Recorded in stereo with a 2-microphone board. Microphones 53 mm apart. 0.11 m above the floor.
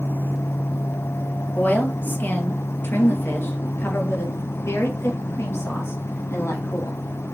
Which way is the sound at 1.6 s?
35° left (ahead or behind).